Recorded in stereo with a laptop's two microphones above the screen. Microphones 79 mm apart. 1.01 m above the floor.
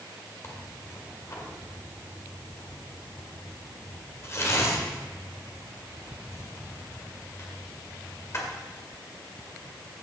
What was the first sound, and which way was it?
Tearing paper, 35° left (ahead or behind).